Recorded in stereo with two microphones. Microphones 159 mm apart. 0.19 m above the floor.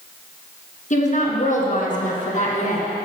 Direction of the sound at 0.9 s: 50° left (ahead or behind).